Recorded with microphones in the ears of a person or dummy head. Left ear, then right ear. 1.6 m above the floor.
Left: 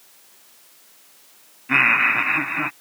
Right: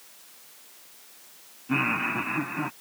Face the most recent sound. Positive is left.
turn(degrees=60)  # may be behind; listen again after turning